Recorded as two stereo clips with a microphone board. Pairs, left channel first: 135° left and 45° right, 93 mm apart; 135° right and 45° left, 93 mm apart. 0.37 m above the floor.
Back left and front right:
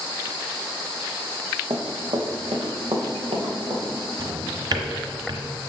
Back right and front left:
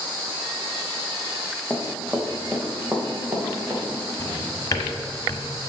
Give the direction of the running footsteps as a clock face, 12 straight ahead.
1 o'clock.